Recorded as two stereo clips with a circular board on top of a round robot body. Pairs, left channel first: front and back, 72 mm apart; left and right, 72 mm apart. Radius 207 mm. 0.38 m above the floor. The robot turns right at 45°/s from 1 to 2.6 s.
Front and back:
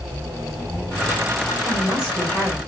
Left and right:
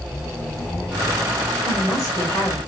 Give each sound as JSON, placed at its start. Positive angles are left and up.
{"t": 1.6, "sound": "a woman speaking", "azimuth_deg": 40, "distance_m": 2.5}